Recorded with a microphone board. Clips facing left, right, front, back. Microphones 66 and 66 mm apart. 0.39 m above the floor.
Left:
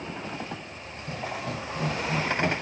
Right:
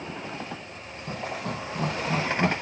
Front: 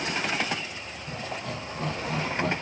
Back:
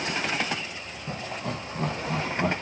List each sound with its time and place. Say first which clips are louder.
1.1 s laughter: right 1 dB, back 2 dB; 135° right, 4 m; by 2.5 s 105° right, 3.5 m